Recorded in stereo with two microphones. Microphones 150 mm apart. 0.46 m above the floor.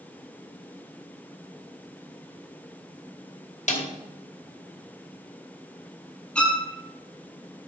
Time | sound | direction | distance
3.7 | a snare drum | 55° left (ahead or behind) | 2 m
6.3 | a violin | 5° left (ahead or behind) | 1.4 m